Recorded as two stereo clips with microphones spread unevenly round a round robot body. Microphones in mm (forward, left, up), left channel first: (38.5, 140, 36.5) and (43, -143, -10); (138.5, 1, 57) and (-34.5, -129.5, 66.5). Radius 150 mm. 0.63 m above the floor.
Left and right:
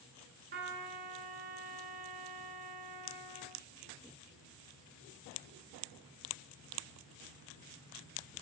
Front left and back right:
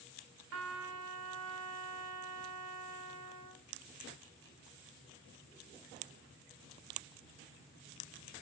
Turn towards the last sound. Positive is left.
turn(degrees=-150)